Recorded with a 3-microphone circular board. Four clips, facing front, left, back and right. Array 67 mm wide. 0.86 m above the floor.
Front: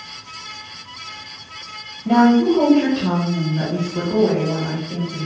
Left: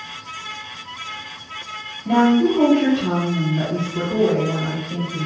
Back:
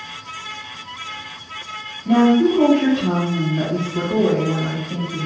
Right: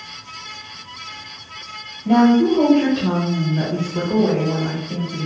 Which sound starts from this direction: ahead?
A woman speaking, at 2.0 s.